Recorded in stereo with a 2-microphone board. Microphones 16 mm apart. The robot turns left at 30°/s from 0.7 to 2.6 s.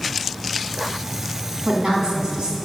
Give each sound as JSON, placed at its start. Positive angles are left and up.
{"t": 1.6, "sound": "a woman speaking", "side_deg": -65, "distance_m": 3.5}